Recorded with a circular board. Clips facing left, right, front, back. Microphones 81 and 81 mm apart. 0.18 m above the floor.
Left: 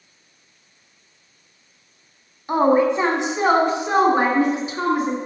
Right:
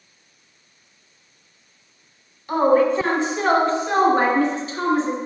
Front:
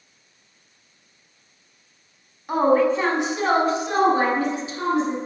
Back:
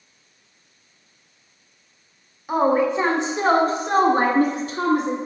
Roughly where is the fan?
I don't hear a fan.